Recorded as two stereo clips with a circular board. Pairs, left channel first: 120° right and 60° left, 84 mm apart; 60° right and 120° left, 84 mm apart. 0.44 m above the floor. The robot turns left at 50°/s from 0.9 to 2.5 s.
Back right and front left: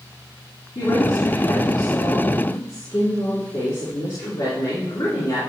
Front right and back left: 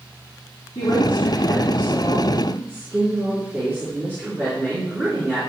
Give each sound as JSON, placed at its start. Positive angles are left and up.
{"t": 0.8, "sound": "a woman speaking", "azimuth_deg": -100, "distance_m": 4.0}